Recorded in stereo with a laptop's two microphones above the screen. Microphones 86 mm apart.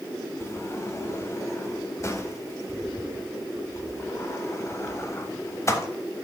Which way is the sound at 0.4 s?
30° left (ahead or behind).